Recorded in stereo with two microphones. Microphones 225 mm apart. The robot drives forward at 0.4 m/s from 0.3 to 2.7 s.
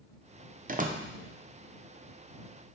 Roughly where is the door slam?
Right.